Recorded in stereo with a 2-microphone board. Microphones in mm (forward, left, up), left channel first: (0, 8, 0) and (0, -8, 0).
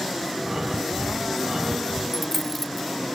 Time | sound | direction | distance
0.4 | breathing | 45° right (ahead or behind) | 3 m
2.1 | a dropped coin | 20° left (ahead or behind) | 0.5 m